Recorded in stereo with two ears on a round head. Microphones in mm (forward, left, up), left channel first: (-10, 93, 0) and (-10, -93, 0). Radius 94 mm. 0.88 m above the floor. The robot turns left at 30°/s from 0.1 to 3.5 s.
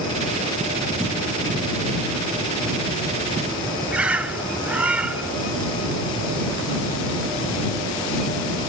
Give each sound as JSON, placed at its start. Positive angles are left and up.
{"t": 3.9, "sound": "a bird", "side_deg": -5}